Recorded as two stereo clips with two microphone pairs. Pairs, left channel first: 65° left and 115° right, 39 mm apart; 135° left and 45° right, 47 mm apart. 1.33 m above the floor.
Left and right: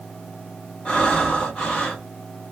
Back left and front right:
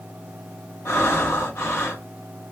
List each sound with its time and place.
0.8 s breathing: 130° left, 2 m